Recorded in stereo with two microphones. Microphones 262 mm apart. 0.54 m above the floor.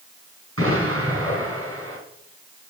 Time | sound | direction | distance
0.6 | an explosion | 60° right (ahead or behind) | 3.5 m